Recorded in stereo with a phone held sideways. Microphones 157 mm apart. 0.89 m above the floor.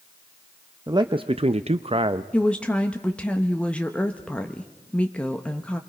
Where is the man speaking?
25° right (ahead or behind), 0.7 m; by 2.2 s 30° right (ahead or behind), 0.8 m.